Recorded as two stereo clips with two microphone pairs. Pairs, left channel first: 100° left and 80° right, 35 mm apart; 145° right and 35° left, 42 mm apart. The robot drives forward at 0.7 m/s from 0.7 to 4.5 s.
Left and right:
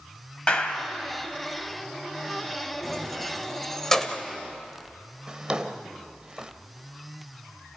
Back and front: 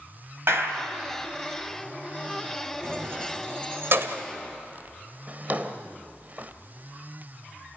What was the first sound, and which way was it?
A clap, 45° left.